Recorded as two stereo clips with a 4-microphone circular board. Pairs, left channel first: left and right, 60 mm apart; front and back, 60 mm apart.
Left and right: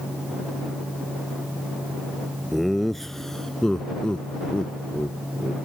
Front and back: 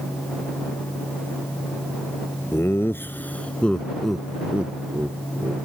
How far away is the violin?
I don't hear a violin.